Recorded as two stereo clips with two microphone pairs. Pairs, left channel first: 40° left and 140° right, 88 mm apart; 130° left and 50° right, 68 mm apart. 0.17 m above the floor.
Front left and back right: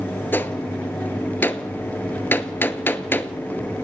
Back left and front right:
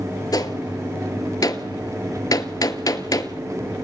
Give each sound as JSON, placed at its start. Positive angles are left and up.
{"t": 0.3, "sound": "a gunshot", "azimuth_deg": 105, "distance_m": 1.1}